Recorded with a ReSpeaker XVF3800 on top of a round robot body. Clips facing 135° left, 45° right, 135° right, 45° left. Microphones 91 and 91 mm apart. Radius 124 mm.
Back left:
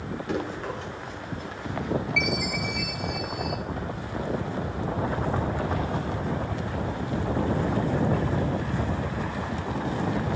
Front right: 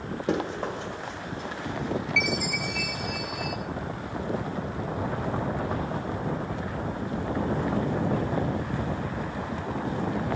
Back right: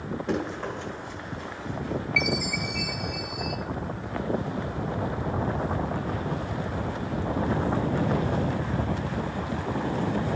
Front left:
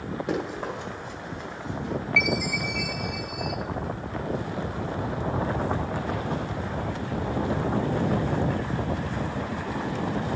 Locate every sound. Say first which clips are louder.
0.3 s running footsteps: front right 3 dB, even; 30° right, 2.0 m; by 1.9 s 10° right, 3 m
2.2 s a chime: back left 1 dB, front left 3 dB; 50° right, 1.9 m